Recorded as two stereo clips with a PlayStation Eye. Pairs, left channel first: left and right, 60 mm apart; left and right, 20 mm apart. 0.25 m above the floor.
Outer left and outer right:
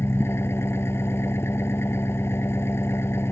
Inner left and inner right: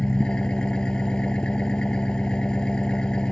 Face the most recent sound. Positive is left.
turn(degrees=50)  # may be behind; listen again after turning